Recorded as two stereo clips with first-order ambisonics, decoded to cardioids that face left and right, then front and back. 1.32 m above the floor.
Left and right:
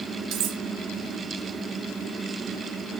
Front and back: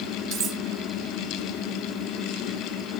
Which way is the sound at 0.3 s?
125° right.